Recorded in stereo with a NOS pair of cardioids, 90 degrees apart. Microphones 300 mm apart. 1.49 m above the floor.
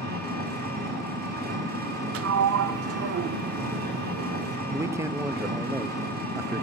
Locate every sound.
0.0 s an engine running: 30° right, 4 m
2.1 s a sliding door: 50° right, 0.5 m
4.7 s a man speaking: 10° right, 0.6 m